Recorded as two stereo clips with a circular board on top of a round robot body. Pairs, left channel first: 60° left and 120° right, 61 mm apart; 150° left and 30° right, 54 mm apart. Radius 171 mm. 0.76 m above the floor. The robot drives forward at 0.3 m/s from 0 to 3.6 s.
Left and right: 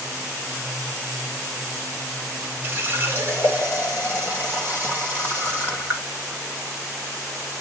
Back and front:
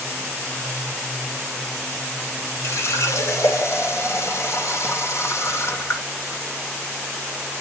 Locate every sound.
2.6 s a running tap: 175° right, 1.9 m